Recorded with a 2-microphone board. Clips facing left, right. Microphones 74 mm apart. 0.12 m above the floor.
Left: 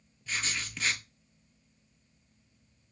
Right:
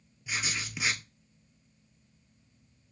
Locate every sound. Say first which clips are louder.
0.3 s writing: right 1 dB; 10° right (ahead or behind), 0.6 m